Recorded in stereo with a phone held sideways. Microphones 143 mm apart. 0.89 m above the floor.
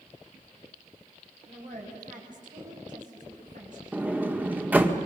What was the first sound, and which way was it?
A woman speaking, 65° right (ahead or behind).